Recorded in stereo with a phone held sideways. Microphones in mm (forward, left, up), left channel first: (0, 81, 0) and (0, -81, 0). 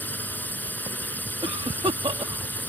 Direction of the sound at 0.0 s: 10° left (ahead or behind).